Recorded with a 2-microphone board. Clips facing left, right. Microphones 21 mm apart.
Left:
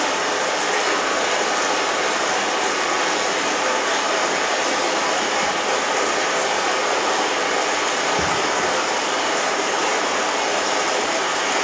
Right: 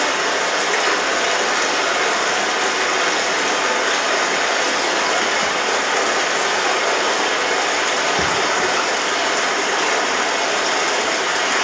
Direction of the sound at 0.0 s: 20° right (ahead or behind).